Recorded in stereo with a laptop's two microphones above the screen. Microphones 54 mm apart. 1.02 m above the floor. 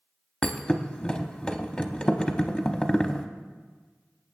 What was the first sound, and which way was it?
A thud, 20° left (ahead or behind).